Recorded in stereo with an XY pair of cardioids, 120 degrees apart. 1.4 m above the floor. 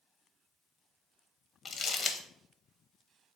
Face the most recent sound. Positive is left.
turn(degrees=30)